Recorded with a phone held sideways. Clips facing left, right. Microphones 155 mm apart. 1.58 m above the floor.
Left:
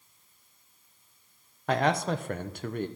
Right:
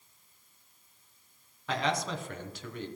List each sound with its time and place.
1.7 s a man speaking: 55° left (ahead or behind), 0.7 m